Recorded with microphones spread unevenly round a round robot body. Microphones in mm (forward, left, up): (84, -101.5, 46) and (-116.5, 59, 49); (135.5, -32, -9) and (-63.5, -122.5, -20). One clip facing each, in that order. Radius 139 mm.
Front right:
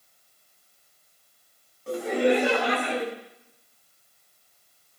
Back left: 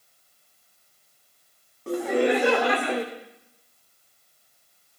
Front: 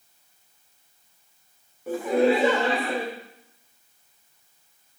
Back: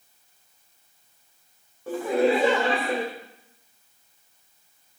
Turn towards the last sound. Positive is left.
turn(degrees=140)